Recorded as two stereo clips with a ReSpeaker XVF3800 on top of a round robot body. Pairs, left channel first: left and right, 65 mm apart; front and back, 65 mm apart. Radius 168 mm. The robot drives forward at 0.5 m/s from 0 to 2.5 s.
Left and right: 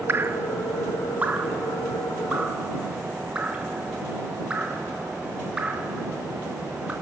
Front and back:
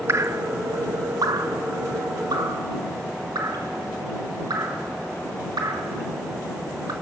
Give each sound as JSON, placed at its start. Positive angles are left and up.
{"t": 0.1, "sound": "dripping", "azimuth_deg": -135, "distance_m": 0.9}